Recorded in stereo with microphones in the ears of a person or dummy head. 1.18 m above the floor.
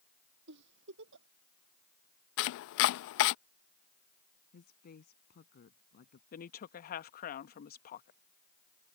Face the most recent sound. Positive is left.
turn(degrees=45)  # may be behind; listen again after turning